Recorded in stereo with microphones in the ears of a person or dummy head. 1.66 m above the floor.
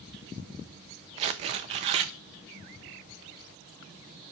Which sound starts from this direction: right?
Tearing paper, at 1.2 s.